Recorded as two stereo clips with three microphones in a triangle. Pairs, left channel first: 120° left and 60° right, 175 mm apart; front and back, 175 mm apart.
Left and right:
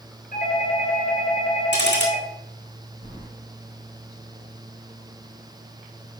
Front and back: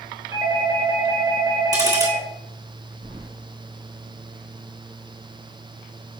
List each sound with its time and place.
0.3 s a doorbell: 120° left, 3 m
1.7 s ticking: 110° left, 2 m
3.0 s keys jangling: 160° left, 4 m